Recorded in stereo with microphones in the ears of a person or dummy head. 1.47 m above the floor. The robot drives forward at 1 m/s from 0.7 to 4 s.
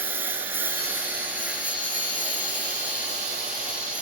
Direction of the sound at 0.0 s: 10° right (ahead or behind).